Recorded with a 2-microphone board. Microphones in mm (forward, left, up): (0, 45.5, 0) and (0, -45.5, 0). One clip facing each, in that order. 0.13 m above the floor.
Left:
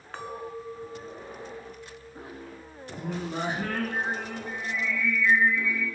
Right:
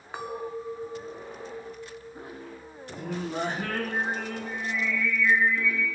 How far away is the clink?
About 0.7 m.